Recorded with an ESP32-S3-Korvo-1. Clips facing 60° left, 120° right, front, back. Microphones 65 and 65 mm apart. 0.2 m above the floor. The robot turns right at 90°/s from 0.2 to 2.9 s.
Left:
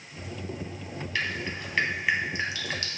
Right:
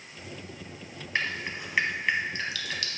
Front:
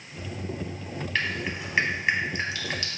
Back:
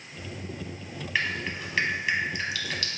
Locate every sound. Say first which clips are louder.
1.1 s dripping: right 1 dB, even; 105° right, 0.7 m; by 3.0 s 50° left, 0.7 m